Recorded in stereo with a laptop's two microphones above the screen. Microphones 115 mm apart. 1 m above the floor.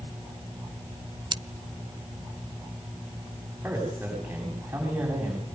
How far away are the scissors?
About 0.6 m.